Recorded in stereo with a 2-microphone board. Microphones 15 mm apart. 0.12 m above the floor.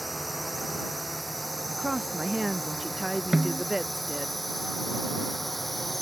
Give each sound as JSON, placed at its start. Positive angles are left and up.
{"t": 0.0, "sound": "a drone", "side_deg": -5}
{"t": 1.7, "sound": "a woman speaking", "side_deg": -40}
{"t": 3.3, "sound": "a snare drum", "side_deg": -40}